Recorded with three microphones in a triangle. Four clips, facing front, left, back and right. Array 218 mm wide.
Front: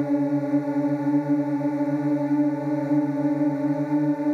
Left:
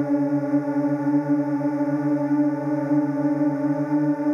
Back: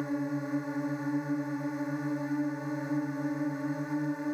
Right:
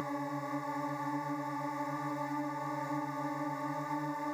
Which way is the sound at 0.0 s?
50° left.